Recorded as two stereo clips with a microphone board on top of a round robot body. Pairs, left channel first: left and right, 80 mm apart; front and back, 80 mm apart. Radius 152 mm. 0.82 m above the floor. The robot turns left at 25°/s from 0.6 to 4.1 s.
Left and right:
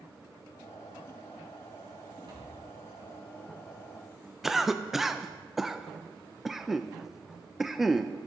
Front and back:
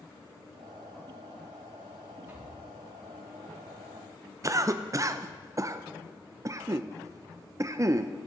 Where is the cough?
175° right, 0.5 m.